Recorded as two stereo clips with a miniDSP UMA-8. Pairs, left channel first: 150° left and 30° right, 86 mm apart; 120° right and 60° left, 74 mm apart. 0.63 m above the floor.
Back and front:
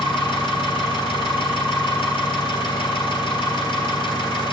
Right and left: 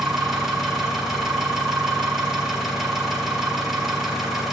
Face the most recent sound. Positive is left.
turn(degrees=145)